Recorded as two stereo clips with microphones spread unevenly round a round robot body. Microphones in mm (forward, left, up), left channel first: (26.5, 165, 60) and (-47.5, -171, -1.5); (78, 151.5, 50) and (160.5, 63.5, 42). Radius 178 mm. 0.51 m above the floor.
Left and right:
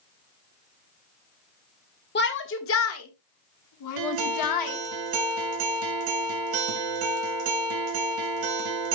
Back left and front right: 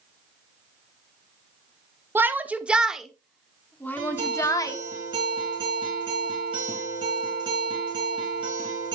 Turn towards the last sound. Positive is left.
turn(degrees=-105)